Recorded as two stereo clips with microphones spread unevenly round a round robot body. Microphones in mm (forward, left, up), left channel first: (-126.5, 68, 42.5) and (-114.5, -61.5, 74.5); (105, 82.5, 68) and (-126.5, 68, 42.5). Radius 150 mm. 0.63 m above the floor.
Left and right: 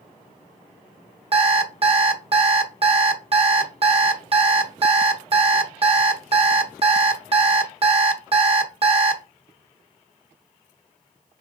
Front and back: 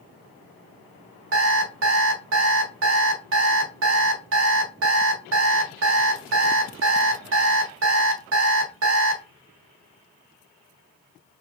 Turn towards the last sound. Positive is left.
turn(degrees=-135)